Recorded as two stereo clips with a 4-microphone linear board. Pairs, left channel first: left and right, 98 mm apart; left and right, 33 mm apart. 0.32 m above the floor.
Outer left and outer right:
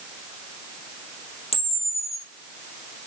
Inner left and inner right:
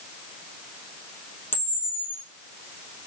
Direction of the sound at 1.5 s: 75° left (ahead or behind).